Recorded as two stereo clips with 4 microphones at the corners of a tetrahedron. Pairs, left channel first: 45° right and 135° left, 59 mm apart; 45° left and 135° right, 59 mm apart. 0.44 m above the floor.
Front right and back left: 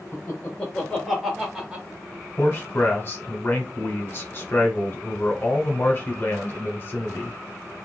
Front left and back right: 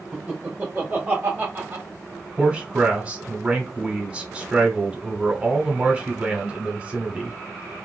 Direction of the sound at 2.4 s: 75° right.